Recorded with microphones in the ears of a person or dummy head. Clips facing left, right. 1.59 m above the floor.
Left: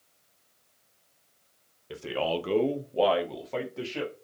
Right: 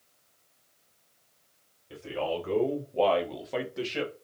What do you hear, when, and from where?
1.9 s a man speaking: 75° left (ahead or behind), 0.7 m; by 4.1 s 25° right (ahead or behind), 1.0 m